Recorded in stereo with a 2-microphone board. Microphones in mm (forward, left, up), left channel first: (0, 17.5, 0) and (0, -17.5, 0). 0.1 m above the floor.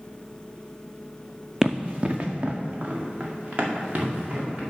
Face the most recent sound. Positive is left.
turn(degrees=-55)  # may be behind; listen again after turning